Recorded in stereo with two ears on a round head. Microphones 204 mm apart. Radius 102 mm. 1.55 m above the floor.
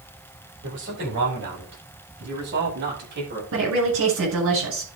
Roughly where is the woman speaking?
Right.